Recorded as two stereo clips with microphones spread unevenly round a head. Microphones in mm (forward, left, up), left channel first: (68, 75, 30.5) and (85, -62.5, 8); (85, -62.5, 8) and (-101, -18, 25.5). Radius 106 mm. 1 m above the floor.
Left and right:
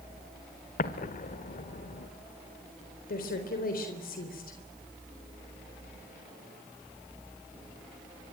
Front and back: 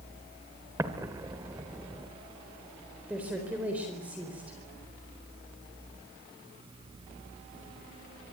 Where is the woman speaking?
85° left, 4 m.